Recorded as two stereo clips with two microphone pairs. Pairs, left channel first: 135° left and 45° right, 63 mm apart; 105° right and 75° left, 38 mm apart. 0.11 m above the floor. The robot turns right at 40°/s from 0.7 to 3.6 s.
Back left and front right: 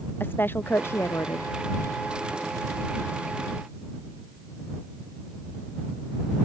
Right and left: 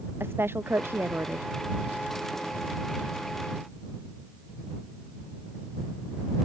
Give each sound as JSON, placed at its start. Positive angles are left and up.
{"t": 0.2, "sound": "a woman speaking", "azimuth_deg": 80}